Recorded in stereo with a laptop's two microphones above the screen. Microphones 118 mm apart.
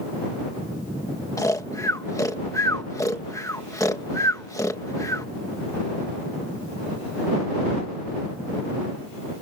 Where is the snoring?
30° left (ahead or behind).